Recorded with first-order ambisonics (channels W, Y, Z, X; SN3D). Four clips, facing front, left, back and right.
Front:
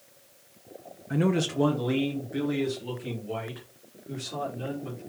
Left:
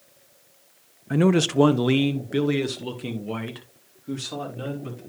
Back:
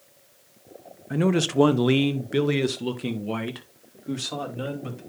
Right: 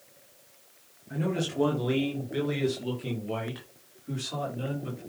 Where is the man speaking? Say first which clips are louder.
Left 10 dB, back 3 dB; 95° left, 0.6 m; by 5.0 s 160° left, 3 m.